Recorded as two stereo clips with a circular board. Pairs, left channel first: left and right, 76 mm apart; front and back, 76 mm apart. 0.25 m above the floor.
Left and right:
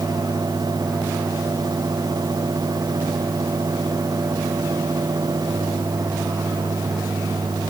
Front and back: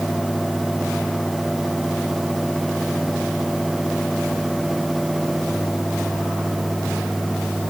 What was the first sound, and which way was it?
Only background noise.